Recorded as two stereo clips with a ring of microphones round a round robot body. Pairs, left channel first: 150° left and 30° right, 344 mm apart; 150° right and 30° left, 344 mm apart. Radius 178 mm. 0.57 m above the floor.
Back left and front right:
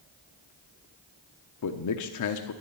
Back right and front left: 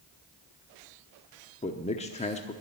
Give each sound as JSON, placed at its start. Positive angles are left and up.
{"t": 1.6, "sound": "a man speaking", "azimuth_deg": 145, "distance_m": 0.9}